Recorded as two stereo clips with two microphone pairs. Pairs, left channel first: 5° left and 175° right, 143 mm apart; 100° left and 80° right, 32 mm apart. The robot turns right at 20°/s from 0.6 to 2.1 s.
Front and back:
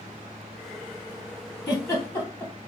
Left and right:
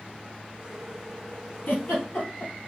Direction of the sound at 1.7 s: 75° left.